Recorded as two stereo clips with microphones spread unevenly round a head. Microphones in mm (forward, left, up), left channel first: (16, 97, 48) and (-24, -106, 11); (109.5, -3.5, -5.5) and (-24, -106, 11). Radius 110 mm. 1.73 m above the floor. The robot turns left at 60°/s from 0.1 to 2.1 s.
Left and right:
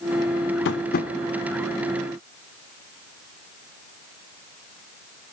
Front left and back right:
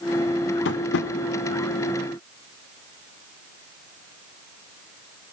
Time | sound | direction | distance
0.7 | tapping | 55° left | 0.6 m